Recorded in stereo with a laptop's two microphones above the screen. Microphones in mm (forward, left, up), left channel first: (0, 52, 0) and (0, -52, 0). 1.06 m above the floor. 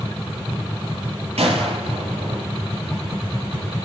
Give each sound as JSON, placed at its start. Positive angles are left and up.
{"t": 1.4, "sound": "a gunshot", "side_deg": -80, "distance_m": 8.5}